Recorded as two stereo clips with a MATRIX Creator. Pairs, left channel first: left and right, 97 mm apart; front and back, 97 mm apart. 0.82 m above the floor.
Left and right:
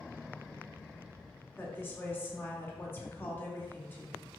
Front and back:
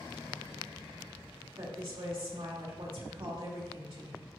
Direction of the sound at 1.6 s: 155° left.